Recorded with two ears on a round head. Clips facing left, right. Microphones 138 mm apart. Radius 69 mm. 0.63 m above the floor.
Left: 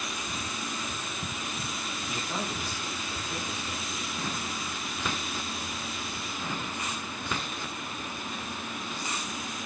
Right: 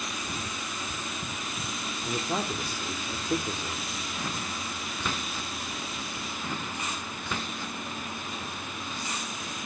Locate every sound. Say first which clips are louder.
2.0 s a man speaking: right 5 dB; 55° right (ahead or behind), 1.8 m